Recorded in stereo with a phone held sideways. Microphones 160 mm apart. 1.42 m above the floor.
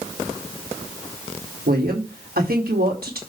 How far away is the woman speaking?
About 4 m.